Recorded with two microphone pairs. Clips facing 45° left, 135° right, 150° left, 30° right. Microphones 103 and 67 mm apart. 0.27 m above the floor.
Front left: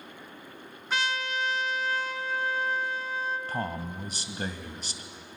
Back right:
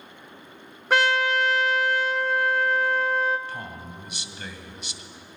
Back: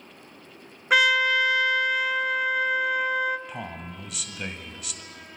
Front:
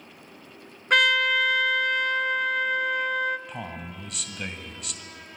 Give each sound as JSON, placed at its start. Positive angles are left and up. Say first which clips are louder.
{"t": 0.9, "sound": "a trumpet", "louder": "back right 9 dB, back 1 dB", "azimuth_deg": -125, "distance_m": 0.7}
{"t": 3.5, "sound": "a man speaking", "louder": "front left 4 dB, even", "azimuth_deg": 60, "distance_m": 1.5}